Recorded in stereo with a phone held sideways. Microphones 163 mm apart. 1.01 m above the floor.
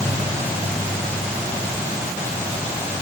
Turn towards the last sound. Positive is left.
No sound to turn to.